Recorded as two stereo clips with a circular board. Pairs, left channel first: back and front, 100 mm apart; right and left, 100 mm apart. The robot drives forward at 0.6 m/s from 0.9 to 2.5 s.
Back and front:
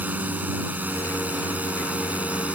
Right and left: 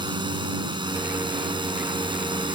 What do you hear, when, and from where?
0.0 s a drone: 70° left; by 2.6 s 75° left